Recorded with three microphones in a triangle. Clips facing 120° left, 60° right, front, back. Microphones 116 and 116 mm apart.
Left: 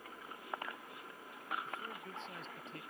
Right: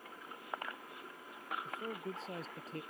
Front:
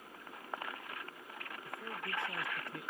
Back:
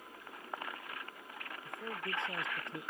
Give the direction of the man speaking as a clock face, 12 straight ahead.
4 o'clock.